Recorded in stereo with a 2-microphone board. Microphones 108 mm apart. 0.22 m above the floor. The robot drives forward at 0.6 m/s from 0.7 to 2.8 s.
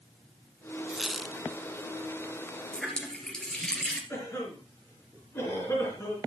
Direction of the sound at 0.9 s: 5° right (ahead or behind).